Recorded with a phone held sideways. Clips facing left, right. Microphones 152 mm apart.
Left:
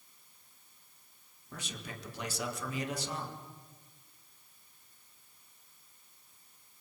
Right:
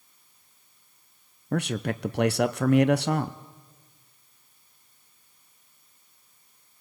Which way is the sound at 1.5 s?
70° right (ahead or behind).